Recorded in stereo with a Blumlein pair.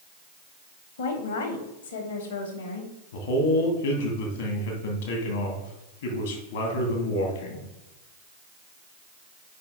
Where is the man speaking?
65° left, 2 m.